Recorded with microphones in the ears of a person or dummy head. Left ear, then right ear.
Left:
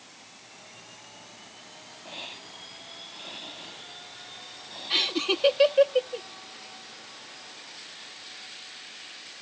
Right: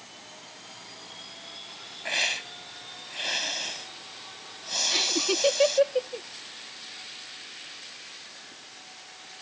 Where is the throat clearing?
No throat clearing in this recording.